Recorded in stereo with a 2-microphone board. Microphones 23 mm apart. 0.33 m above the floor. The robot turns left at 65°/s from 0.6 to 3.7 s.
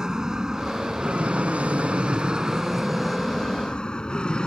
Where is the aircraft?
30° right (ahead or behind); by 4.5 s 40° left (ahead or behind).